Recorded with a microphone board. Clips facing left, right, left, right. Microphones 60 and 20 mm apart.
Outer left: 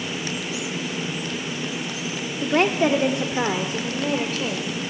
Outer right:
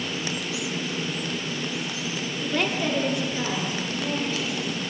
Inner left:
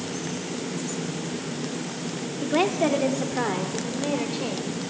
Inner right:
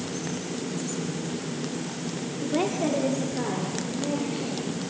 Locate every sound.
2.4 s a woman speaking: 35° left (ahead or behind), 1.0 m; by 4.7 s 70° left (ahead or behind), 2 m